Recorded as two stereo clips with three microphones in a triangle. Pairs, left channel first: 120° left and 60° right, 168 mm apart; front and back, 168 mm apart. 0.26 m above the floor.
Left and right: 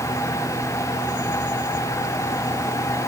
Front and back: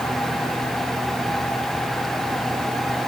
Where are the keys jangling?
I don't hear keys jangling.